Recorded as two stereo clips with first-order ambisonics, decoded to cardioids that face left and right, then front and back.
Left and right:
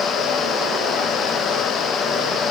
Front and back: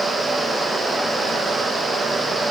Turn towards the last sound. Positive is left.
No sound to turn to.